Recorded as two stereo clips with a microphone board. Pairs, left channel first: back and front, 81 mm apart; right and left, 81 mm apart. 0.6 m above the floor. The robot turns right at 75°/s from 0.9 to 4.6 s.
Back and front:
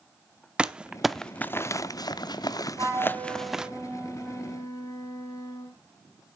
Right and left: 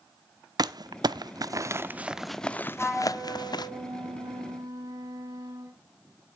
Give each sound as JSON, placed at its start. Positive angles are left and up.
{"t": 0.6, "sound": "crumpling", "azimuth_deg": 75, "distance_m": 0.5}
{"t": 2.8, "sound": "a flute", "azimuth_deg": -5, "distance_m": 4.5}